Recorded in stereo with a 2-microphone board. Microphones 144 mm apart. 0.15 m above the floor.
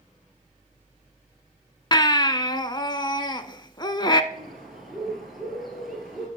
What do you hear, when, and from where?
1.9 s a baby crying: 35° left (ahead or behind), 0.6 m
4.3 s a bird: centre (ahead or behind), 3.5 m